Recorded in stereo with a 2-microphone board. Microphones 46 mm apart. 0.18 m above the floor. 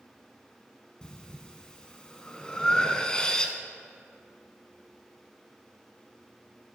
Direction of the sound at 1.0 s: 20° left (ahead or behind).